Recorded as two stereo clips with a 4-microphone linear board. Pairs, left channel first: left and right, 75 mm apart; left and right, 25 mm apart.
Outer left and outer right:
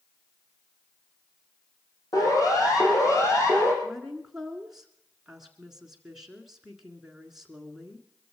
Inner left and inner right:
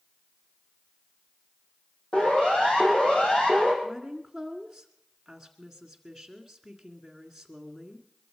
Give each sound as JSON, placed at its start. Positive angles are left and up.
{"t": 2.1, "sound": "a siren", "side_deg": 50, "distance_m": 6.5}
{"t": 3.8, "sound": "a woman speaking", "side_deg": -5, "distance_m": 1.8}